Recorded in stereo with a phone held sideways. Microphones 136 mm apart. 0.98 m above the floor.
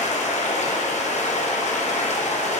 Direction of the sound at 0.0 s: 60° left (ahead or behind).